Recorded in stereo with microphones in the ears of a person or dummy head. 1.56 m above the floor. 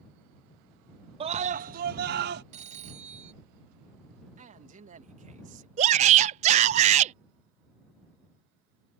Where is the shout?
40° right (ahead or behind).